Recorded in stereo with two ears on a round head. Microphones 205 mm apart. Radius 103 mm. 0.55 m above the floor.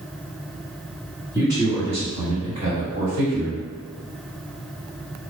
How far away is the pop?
No pop in this recording.